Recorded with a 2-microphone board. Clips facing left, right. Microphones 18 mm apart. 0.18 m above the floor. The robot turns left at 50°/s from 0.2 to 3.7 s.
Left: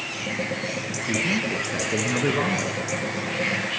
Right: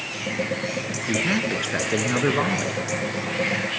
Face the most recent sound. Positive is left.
turn(degrees=160)